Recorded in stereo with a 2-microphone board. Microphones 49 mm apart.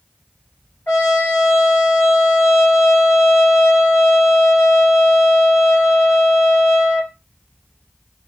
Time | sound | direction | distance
0.9 | a trumpet | 50° left (ahead or behind) | 2.5 m